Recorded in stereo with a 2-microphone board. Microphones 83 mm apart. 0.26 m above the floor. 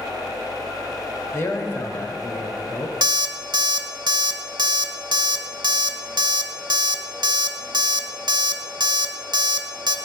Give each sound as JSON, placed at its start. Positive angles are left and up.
{"t": 1.3, "sound": "a man speaking", "side_deg": 30, "distance_m": 1.0}
{"t": 3.0, "sound": "an alarm clock", "side_deg": -60, "distance_m": 0.7}